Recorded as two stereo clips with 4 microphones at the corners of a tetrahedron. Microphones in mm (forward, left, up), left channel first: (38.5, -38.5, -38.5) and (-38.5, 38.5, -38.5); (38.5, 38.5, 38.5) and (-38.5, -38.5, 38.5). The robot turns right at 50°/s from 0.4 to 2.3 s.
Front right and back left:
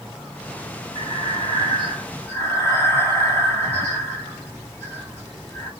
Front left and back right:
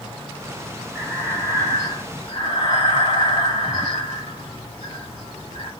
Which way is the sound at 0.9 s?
45° right.